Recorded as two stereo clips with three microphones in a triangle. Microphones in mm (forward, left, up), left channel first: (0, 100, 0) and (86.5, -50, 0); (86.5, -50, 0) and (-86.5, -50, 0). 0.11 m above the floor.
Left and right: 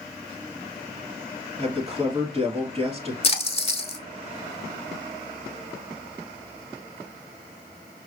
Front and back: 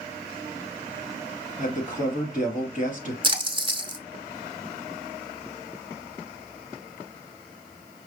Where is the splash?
140° left, 0.8 m.